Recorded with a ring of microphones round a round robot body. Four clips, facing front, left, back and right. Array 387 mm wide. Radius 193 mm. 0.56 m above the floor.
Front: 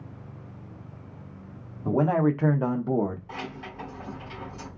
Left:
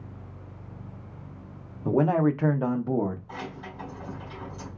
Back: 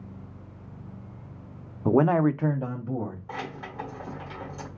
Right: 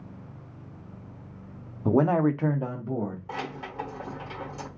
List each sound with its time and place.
1.9 s a man speaking: 160° right, 0.7 m; by 3.2 s 30° left, 1.0 m
3.3 s keys jangling: 105° right, 1.5 m